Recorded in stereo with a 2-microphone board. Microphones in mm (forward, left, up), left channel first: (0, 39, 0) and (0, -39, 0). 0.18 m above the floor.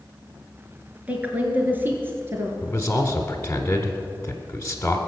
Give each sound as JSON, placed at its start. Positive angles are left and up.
{"t": 1.1, "sound": "a woman speaking", "side_deg": -15, "distance_m": 2.5}
{"t": 2.6, "sound": "a man speaking", "side_deg": 20, "distance_m": 1.2}